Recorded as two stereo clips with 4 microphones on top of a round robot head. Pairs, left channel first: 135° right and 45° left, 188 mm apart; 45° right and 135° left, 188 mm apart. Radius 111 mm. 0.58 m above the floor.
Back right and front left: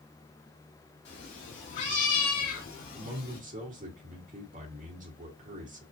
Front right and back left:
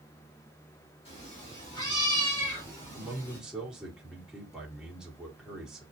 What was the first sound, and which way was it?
A cat meowing, 110° right.